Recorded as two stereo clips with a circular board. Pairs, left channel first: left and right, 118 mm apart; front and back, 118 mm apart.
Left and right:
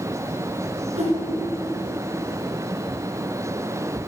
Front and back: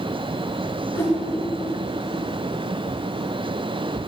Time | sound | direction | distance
0.9 | a whoosh | 70° right | 2 m